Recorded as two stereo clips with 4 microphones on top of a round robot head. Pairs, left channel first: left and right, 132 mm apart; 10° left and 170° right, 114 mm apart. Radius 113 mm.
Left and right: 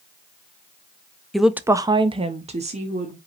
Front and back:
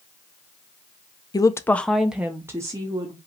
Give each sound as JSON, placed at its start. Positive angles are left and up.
{"t": 1.3, "sound": "a woman speaking", "azimuth_deg": 5, "distance_m": 0.6}